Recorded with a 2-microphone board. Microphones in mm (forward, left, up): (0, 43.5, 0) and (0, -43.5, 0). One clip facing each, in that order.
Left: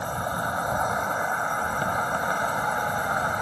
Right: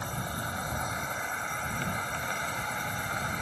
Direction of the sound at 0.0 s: 40° left (ahead or behind).